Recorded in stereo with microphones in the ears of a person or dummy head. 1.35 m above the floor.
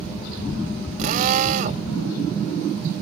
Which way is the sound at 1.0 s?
45° right (ahead or behind).